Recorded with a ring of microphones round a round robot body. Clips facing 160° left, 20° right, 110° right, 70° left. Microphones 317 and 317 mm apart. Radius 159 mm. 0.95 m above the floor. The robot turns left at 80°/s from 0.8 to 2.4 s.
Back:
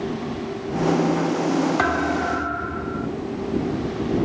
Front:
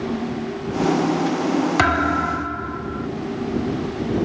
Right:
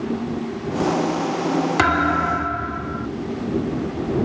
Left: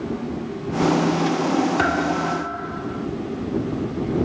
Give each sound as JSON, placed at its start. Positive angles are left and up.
{"t": 1.8, "sound": "a thud", "azimuth_deg": -45}